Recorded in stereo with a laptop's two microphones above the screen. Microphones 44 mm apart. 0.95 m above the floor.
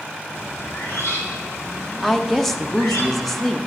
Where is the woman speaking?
5° left (ahead or behind), 0.9 m.